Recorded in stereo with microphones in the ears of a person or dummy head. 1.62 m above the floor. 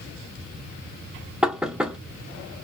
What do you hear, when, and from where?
1.4 s knocking: 5° right (ahead or behind), 0.5 m